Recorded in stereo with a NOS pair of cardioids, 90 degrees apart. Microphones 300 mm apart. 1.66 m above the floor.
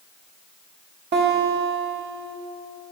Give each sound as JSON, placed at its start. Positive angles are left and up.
{"t": 1.1, "sound": "a guitar", "azimuth_deg": -35, "distance_m": 2.0}